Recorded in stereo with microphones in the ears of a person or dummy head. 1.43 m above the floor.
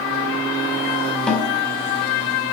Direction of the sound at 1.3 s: 10° left (ahead or behind).